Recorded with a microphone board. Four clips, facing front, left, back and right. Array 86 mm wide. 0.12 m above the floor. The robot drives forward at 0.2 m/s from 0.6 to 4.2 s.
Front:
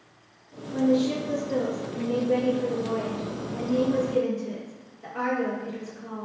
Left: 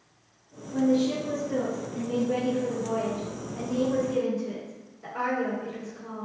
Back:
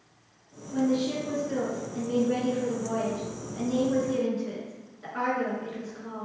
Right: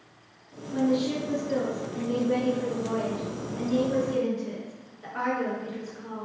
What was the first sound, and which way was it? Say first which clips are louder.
A woman speaking: left 2 dB, front 3 dB; 100° right.